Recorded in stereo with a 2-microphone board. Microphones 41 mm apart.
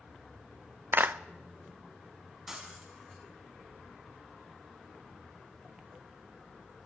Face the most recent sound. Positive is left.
turn(degrees=-15)  # may be behind; listen again after turning